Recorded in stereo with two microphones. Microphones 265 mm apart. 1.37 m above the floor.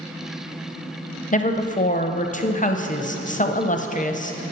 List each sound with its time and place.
1.3 s a woman speaking: 30° left (ahead or behind), 0.7 m